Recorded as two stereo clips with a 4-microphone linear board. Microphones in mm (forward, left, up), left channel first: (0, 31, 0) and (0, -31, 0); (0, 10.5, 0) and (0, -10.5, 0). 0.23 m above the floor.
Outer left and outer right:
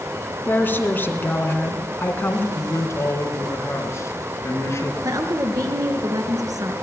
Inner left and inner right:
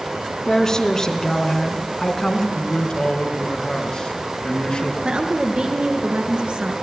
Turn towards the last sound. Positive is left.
turn(degrees=-70)  # may be behind; listen again after turning